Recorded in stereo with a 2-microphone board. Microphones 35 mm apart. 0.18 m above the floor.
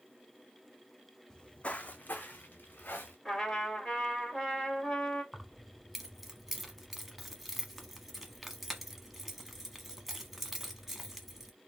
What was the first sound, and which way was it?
Footsteps, 20° left (ahead or behind).